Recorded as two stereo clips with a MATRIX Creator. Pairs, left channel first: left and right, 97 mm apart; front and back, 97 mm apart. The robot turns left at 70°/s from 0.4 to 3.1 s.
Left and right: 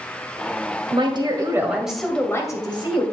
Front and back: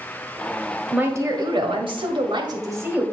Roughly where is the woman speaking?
Right.